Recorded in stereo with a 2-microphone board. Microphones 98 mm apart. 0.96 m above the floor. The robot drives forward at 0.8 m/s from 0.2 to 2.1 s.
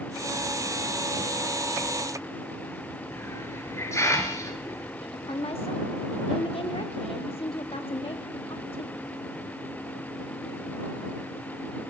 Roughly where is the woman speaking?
Left.